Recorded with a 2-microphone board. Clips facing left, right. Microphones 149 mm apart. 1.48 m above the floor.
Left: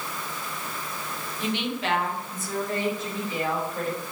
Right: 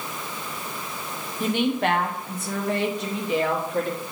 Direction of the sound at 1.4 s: 45° right (ahead or behind).